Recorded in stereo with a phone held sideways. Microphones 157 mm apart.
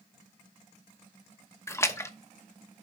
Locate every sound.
1.7 s a splash: 20° left (ahead or behind), 0.8 m